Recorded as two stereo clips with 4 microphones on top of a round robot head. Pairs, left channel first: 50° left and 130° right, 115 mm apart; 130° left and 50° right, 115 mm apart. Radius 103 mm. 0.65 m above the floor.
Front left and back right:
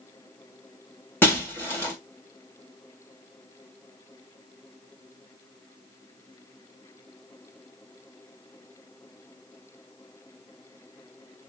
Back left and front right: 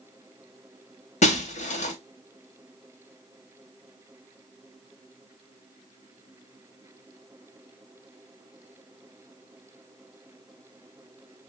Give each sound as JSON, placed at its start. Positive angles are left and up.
{"t": 1.2, "sound": "breaking glass", "azimuth_deg": 120, "distance_m": 1.4}